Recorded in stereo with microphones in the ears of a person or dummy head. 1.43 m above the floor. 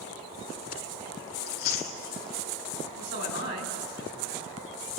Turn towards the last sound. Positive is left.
turn(degrees=-50)  # may be behind; listen again after turning